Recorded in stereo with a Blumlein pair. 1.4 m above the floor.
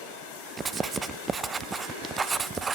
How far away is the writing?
About 0.6 m.